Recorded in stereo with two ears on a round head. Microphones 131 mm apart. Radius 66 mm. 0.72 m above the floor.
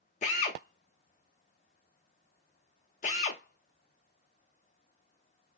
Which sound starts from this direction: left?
A drill, at 0.2 s.